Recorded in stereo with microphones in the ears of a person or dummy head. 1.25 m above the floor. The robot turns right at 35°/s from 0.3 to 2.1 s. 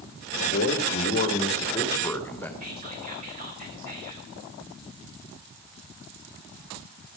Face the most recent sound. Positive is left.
turn(degrees=-45)  # may be behind; listen again after turning